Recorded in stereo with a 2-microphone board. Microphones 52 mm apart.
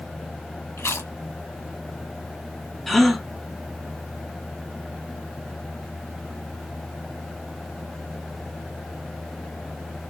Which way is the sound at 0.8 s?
60° left (ahead or behind).